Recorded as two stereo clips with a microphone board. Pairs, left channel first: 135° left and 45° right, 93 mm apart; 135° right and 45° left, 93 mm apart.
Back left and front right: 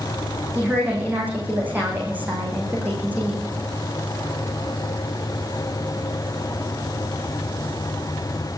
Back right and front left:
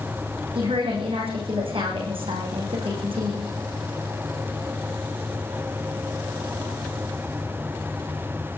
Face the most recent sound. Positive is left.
turn(degrees=30)